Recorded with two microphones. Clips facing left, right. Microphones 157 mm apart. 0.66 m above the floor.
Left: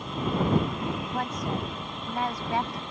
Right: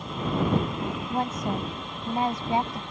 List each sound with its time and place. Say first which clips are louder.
1.1 s a woman speaking: right 2 dB; 25° right (ahead or behind)